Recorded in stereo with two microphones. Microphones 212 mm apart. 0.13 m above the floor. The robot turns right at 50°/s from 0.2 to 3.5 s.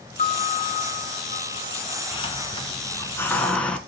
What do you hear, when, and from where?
0.2 s a piano: 60° left, 1.3 m; by 2.0 s 150° left, 1.3 m
2.1 s a hiss: 25° left (ahead or behind), 1.7 m; by 3.8 s 5° left (ahead or behind), 1.7 m